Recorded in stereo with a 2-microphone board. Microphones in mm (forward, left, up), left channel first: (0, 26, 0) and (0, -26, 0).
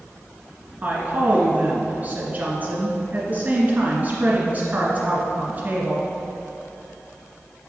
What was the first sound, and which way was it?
A woman speaking, 30° right (ahead or behind).